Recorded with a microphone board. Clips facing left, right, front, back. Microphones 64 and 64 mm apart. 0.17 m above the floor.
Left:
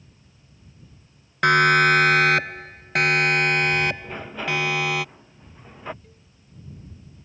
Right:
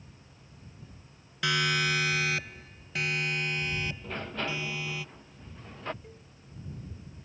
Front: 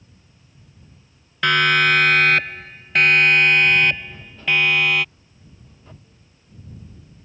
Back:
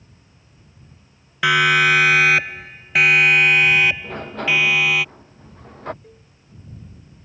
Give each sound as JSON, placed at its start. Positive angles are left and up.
{"t": 1.4, "sound": "a siren", "azimuth_deg": 100}
{"t": 4.0, "sound": "a sliding door", "azimuth_deg": 170}
{"t": 6.0, "sound": "a cowbell", "azimuth_deg": -165}